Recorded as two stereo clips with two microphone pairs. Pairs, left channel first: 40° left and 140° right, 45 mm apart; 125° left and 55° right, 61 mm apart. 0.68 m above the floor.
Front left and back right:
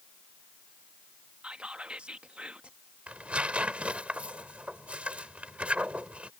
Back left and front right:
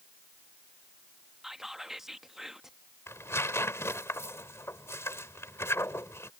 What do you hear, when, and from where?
1.4 s whispering: 125° right
3.1 s tearing paper: 160° left